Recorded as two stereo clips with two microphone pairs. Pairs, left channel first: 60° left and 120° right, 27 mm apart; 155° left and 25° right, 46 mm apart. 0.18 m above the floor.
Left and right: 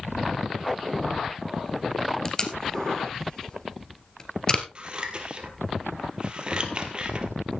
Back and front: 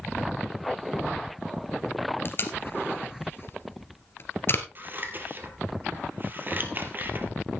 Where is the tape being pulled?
125° left, 1.8 m.